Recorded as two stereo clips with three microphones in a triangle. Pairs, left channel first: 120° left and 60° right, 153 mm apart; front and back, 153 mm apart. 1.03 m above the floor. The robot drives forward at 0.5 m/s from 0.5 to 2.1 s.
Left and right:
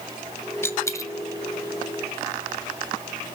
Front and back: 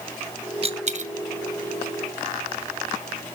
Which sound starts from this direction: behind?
A dropped coin, at 0.6 s.